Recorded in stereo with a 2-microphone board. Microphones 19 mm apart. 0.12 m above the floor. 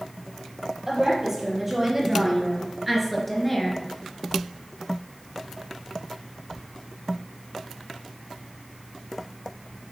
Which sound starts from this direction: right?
A woman speaking, at 0.9 s.